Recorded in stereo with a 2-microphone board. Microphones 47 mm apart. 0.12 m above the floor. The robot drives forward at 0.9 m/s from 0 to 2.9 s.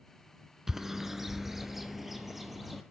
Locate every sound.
0.7 s a bird: 10° right (ahead or behind), 0.9 m; by 2.8 s 5° right (ahead or behind), 2.5 m